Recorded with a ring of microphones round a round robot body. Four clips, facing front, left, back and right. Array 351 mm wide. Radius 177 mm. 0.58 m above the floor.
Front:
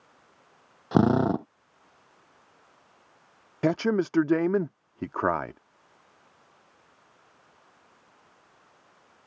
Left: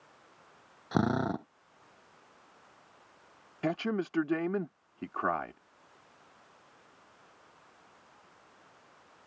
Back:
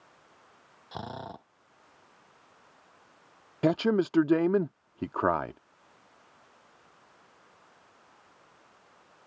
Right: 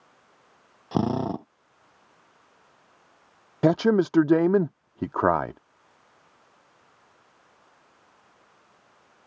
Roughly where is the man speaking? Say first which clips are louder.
Right 12 dB, front 1 dB; right.